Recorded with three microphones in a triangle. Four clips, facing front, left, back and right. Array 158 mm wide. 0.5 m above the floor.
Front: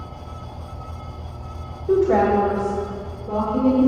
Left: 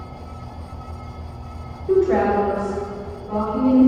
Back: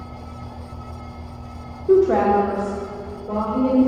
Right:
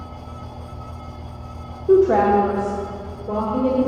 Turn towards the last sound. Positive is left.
turn(degrees=-95)